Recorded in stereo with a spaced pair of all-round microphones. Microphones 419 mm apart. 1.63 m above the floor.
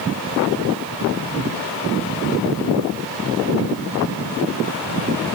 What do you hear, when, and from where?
Only background noise.